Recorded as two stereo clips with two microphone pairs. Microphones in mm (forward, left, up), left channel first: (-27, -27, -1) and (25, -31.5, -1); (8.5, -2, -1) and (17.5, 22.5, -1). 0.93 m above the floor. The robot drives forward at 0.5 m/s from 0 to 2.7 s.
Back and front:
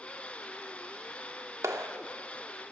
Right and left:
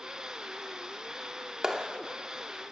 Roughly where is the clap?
Ahead.